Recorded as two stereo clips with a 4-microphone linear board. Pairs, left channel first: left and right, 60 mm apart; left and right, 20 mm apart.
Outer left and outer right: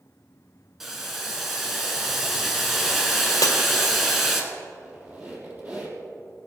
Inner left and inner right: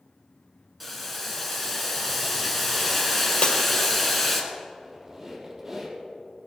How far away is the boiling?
About 1.8 m.